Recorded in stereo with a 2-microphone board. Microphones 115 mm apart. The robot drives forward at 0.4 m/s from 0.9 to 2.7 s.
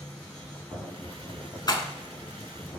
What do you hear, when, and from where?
1.7 s a rattle: 40° left (ahead or behind), 0.6 m